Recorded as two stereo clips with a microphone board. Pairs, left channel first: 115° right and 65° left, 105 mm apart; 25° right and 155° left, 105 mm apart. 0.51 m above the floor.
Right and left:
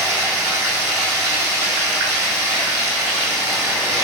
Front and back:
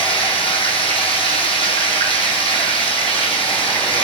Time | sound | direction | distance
0.0 | running water | straight ahead | 3 m